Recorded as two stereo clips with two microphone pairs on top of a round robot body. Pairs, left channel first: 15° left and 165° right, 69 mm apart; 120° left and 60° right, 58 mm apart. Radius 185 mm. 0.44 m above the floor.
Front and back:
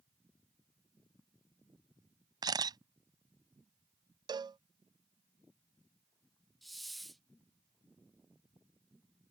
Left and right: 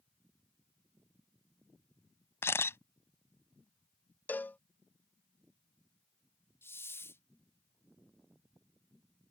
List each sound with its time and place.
2.4 s a camera shutter: 165° left
4.3 s a cowbell: 175° left
6.6 s a hiss: 100° left